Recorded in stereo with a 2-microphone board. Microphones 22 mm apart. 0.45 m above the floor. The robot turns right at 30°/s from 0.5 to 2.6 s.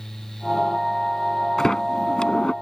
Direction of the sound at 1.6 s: 20° left (ahead or behind).